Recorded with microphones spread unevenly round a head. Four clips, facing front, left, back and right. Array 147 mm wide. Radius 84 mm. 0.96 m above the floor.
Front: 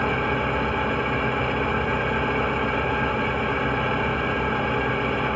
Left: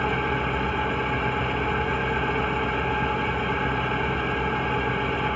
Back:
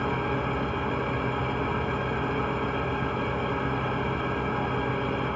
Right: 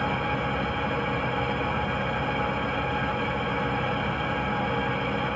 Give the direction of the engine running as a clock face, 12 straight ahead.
12 o'clock.